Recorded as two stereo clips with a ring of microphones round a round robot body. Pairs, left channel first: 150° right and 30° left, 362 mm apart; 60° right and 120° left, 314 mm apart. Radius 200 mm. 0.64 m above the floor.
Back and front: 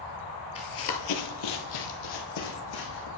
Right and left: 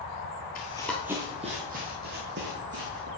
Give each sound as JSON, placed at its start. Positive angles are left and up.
{"t": 0.6, "sound": "running footsteps", "azimuth_deg": -95, "distance_m": 0.6}